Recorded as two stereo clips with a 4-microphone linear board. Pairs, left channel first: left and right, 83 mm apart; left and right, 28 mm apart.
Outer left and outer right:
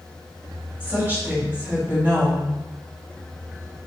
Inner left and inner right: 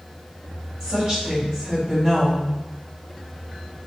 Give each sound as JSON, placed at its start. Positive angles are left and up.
{"t": 0.8, "sound": "a woman speaking", "side_deg": -30, "distance_m": 1.9}